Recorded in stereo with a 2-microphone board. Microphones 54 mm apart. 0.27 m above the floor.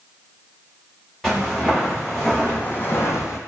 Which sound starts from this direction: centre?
Footsteps, at 1.2 s.